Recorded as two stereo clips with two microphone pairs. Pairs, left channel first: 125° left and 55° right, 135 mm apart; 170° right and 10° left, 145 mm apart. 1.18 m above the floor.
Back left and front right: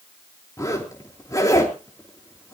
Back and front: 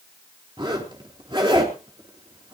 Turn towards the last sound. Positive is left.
turn(degrees=65)